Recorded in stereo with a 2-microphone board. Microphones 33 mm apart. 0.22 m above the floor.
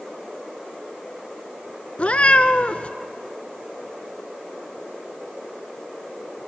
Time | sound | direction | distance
2.0 | a cat meowing | 40° left (ahead or behind) | 1.0 m